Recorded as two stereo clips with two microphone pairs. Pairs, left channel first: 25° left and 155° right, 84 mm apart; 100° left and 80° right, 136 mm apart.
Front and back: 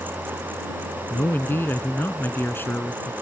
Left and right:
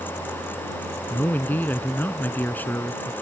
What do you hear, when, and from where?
1.1 s a man speaking: 40° left